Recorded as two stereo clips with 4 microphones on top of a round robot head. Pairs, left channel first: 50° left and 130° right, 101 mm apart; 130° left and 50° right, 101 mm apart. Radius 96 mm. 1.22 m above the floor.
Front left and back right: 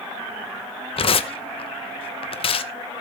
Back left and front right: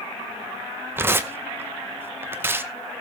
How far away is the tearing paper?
About 0.8 m.